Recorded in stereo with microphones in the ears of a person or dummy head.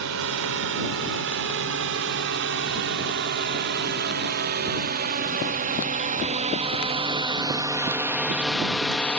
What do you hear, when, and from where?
0.0 s a drone: 70° right (ahead or behind); by 9.2 s 10° left (ahead or behind)